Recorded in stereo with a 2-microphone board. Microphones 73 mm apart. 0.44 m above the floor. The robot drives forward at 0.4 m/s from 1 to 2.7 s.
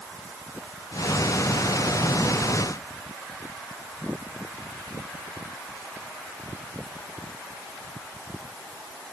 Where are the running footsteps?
No running footsteps in this recording.